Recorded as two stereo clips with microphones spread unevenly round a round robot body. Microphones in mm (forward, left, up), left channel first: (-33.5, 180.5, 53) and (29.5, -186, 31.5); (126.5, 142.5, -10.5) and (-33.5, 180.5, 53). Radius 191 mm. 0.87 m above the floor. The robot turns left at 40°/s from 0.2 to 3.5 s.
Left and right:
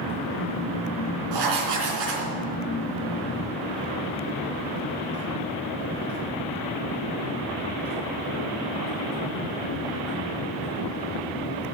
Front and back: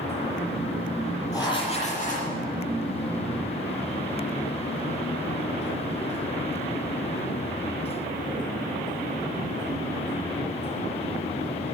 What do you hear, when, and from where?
1.3 s writing: 110° right, 3.5 m; by 2.3 s 150° right, 3.5 m